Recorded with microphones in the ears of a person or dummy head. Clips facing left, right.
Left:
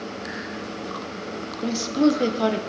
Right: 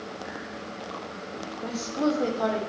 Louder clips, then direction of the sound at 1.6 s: Left 7 dB; 45° left (ahead or behind).